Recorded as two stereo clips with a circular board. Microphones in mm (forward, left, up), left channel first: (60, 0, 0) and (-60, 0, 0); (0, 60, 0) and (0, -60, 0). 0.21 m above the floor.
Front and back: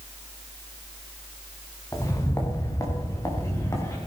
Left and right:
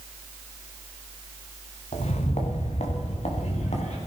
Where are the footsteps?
65° left, 2.5 m.